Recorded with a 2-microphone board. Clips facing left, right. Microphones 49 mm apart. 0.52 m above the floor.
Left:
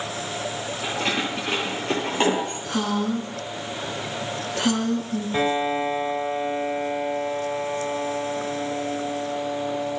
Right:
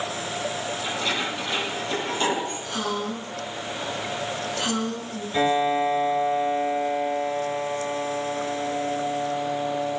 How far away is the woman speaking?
About 8.5 m.